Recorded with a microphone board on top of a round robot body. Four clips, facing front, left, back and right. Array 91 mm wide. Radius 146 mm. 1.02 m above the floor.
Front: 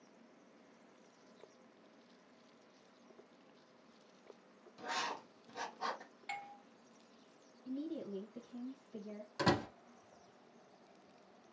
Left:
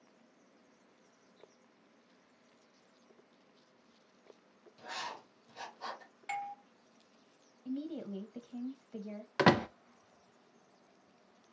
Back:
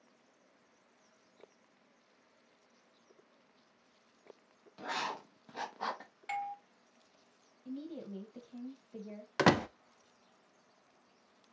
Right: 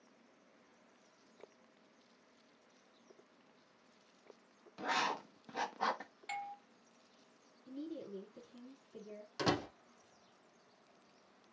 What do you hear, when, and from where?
4.8 s writing: 115° right, 0.7 m
6.3 s a doorbell: 120° left, 0.6 m
7.7 s a woman speaking: 105° left, 1.6 m
9.4 s a door slam: 135° left, 0.6 m